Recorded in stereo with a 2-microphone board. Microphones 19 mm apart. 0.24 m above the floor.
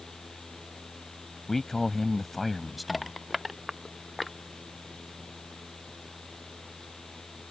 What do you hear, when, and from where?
1.5 s a man speaking: 20° left (ahead or behind); by 3.2 s 5° right (ahead or behind)
2.9 s crushing: 5° right (ahead or behind)